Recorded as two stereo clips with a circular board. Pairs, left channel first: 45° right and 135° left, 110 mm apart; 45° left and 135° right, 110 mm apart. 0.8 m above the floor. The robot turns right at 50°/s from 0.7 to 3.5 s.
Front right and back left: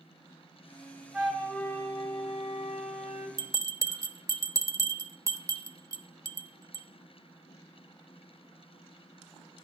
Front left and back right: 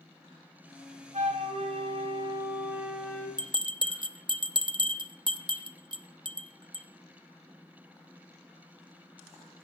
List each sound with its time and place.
1.1 s a flute: 140° right, 3 m; by 3.3 s 35° right, 3 m
3.4 s a bell: 175° right, 0.7 m; by 6.9 s 170° right, 0.7 m